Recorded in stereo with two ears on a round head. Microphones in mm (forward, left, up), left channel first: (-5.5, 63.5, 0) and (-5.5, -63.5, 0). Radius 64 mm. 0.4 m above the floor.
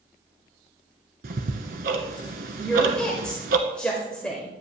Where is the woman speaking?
5° left (ahead or behind), 1.1 m.